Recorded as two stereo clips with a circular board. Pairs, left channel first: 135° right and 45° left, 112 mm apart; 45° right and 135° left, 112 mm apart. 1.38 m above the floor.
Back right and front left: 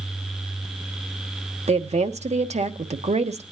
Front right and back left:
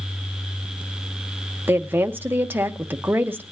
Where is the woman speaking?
60° left, 1.0 m.